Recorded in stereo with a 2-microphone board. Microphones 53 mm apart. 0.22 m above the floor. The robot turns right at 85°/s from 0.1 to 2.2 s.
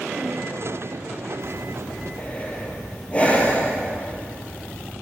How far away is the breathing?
About 3 m.